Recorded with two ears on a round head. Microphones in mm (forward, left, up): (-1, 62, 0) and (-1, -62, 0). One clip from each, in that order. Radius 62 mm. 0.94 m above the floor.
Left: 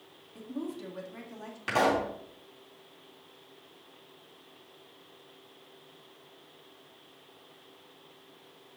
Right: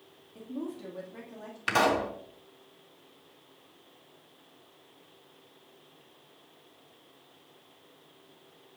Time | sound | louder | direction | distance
0.3 | a woman speaking | even | 20° left (ahead or behind) | 2.0 m
1.7 | a pop | right 1 dB | 45° right (ahead or behind) | 3 m